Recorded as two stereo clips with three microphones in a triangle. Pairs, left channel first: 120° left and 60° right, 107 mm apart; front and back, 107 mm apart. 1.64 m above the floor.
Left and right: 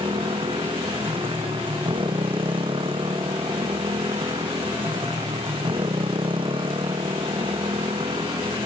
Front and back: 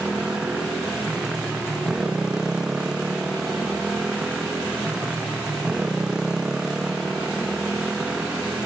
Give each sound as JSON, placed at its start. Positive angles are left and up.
{"t": 0.0, "sound": "a motorcycle", "azimuth_deg": -95}